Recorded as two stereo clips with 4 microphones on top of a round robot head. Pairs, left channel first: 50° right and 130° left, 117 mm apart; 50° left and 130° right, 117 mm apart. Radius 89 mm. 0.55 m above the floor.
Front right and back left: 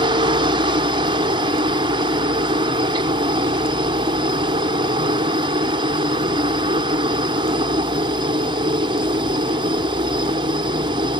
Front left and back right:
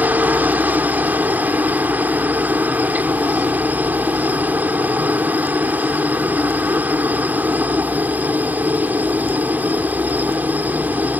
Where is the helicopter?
160° left.